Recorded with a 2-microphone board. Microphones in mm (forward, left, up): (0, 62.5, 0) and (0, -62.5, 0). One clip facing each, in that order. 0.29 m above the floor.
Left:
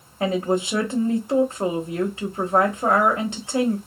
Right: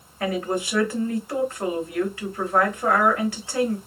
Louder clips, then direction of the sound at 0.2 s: Left 3 dB; 25° left (ahead or behind).